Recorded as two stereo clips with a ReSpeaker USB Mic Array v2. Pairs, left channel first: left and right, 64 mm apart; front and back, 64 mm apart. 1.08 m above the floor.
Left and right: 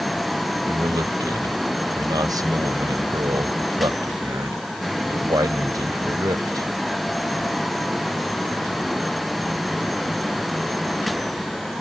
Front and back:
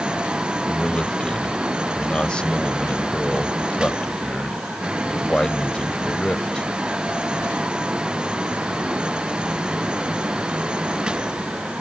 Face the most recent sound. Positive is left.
turn(degrees=-75)